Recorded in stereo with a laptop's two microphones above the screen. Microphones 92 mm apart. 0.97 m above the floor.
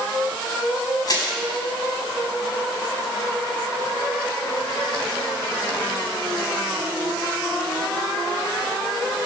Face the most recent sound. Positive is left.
turn(degrees=45)  # may be behind; listen again after turning